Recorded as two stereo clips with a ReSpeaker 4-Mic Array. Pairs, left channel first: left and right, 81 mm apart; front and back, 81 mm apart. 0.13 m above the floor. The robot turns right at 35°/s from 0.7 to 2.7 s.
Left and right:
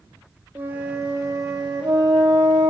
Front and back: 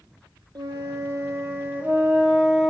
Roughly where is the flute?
Behind right.